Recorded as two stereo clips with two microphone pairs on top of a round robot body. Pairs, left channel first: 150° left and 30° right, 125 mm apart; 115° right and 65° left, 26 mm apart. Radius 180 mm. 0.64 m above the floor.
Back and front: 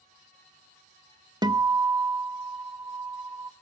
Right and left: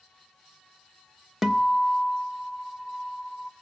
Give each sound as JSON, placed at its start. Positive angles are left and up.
{"t": 1.4, "sound": "a guitar", "azimuth_deg": -5, "distance_m": 1.5}